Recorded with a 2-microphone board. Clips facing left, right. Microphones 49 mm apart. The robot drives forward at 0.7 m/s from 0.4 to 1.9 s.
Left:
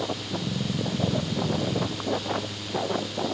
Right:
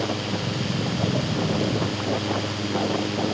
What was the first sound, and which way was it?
Only background noise.